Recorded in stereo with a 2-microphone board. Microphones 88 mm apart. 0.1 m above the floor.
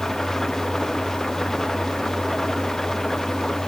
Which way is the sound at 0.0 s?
5° left (ahead or behind).